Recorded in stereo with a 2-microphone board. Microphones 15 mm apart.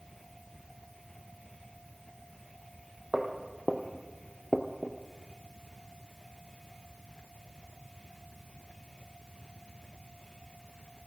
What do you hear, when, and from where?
3.1 s footsteps: 40° right (ahead or behind), 1.7 m; by 5.0 s 60° left (ahead or behind), 1.2 m